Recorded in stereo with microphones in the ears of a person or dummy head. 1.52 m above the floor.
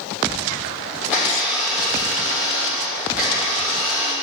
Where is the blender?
5° right (ahead or behind), 1.9 m.